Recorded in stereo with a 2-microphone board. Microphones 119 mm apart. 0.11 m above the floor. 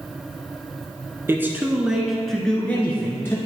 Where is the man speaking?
20° right (ahead or behind), 1.1 m; by 3.4 s 20° left (ahead or behind), 1.5 m.